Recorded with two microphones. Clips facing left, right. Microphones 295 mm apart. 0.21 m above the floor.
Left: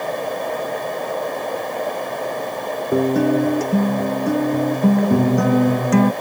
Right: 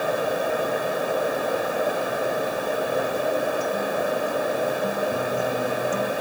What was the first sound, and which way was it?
A guitar, 80° left.